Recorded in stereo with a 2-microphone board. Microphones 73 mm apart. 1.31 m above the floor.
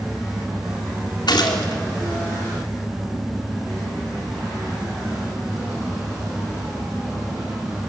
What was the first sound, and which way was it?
A gunshot, 80° left.